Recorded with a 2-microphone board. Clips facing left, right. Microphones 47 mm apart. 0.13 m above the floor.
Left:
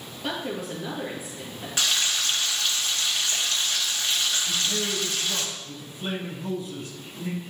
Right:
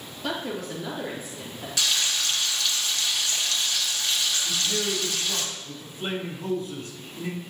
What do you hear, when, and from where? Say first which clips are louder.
0.2 s a woman speaking: even; 15° left (ahead or behind), 2.5 m
1.8 s frying: left 1 dB; 35° left (ahead or behind), 1.4 m
4.5 s a man speaking: even; 40° right (ahead or behind), 3.5 m